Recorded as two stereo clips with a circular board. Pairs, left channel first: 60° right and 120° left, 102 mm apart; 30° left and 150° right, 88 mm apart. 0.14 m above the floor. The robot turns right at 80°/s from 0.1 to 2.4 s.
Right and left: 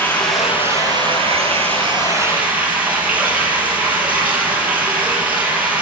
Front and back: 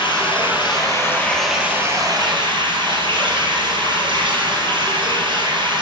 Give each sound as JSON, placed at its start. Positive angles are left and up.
{"t": 0.0, "sound": "running water", "azimuth_deg": 10, "distance_m": 3.0}